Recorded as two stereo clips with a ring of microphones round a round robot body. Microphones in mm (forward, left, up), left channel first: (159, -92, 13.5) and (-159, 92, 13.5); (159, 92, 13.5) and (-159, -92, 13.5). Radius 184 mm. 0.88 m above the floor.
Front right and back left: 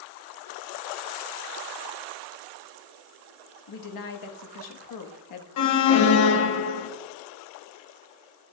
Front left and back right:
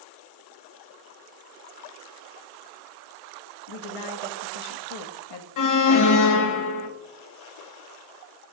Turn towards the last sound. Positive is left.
turn(degrees=5)